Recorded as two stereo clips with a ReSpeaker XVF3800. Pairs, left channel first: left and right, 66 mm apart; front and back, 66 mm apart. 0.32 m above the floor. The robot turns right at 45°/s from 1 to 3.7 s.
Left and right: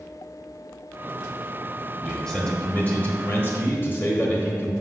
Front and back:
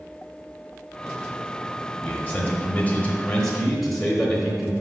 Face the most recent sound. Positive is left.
turn(degrees=80)